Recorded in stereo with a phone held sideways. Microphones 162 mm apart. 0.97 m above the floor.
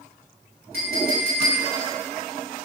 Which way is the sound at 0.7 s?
75° right (ahead or behind).